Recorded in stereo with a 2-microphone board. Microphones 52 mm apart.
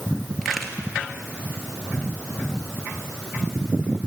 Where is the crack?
Centre (ahead or behind), 2 m.